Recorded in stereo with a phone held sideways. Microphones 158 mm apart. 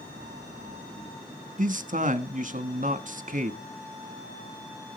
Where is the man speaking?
55° right (ahead or behind), 1.3 m.